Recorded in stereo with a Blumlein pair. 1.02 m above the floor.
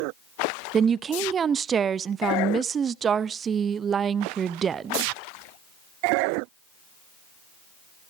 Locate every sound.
0.7 s a woman speaking: 20° right, 0.6 m